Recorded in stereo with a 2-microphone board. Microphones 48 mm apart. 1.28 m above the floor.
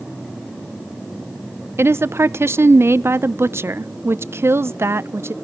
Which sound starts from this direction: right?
A woman speaking, at 1.8 s.